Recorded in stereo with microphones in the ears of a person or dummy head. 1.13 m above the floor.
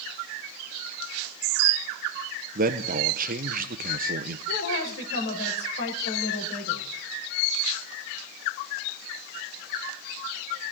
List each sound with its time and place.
2.5 s a man speaking: 35° right (ahead or behind), 0.5 m
4.5 s a woman speaking: 60° left (ahead or behind), 4 m